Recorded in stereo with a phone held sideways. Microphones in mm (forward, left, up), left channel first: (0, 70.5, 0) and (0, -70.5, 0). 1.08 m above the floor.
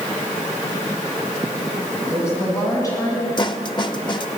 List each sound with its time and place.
2.1 s a woman speaking: 20° left (ahead or behind), 7 m; by 3.3 s 25° left (ahead or behind), 7.5 m
3.4 s a snare drum: 35° left (ahead or behind), 0.8 m